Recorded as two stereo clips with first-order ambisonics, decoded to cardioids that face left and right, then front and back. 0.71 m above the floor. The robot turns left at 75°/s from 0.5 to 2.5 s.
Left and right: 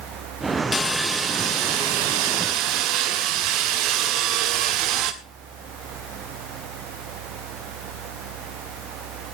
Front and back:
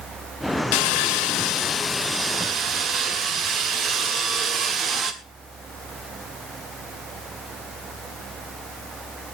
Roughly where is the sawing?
Ahead.